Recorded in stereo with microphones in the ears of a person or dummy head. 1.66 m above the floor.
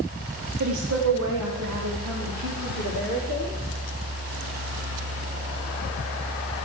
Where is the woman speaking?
55° right (ahead or behind), 0.6 m; by 3.6 s 80° right, 5 m.